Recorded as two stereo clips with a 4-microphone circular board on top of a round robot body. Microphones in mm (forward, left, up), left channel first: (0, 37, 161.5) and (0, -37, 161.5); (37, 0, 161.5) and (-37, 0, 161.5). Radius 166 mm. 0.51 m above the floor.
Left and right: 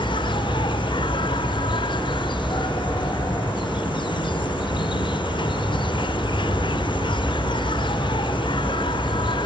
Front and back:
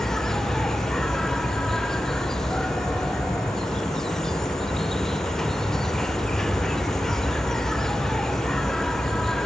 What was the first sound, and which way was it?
An insect, 85° left.